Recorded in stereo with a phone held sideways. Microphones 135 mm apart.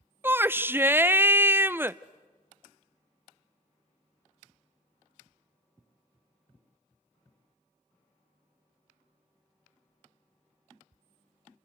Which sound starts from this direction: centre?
A shout, at 0.2 s.